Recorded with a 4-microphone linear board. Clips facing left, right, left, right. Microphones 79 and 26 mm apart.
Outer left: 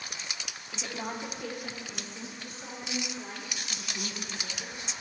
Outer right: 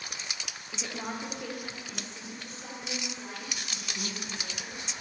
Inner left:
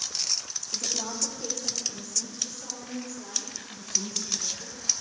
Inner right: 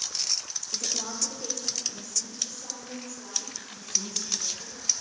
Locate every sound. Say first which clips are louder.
0.7 s a woman speaking: even, even; centre (ahead or behind), 0.8 m; by 4.8 s 10° left (ahead or behind), 4.5 m